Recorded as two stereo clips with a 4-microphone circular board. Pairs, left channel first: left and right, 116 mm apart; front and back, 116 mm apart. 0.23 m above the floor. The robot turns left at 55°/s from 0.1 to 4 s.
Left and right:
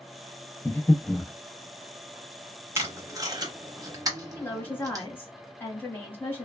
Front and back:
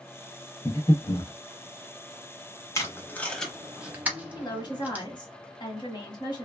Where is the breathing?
45° left, 0.5 m; by 1.3 s 5° left, 0.5 m.